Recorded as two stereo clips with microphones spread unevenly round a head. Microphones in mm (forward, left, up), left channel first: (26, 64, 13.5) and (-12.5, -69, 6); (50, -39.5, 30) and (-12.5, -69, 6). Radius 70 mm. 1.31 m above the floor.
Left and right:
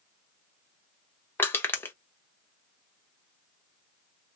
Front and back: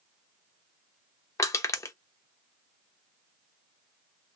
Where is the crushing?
Straight ahead, 0.7 m.